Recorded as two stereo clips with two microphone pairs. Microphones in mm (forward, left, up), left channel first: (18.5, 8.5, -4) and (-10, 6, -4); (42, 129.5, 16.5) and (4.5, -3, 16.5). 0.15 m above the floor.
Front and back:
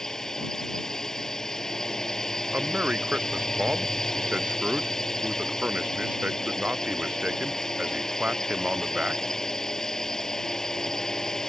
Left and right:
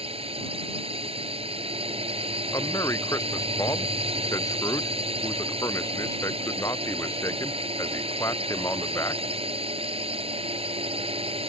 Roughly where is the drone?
Ahead right.